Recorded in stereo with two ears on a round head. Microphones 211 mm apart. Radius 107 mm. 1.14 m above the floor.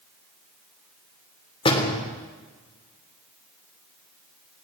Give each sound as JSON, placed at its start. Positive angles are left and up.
{"t": 1.6, "sound": "a door slam", "side_deg": 20, "distance_m": 3.5}